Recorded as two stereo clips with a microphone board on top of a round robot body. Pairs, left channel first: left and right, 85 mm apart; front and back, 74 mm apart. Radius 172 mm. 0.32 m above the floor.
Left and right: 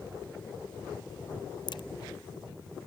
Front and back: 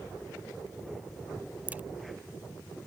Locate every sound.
1.7 s a crack: 110° left